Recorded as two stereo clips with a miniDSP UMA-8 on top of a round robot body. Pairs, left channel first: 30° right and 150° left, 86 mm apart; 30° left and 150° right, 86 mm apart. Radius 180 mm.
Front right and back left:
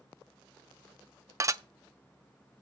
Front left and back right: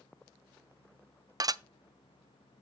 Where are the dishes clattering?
170° right, 0.6 m.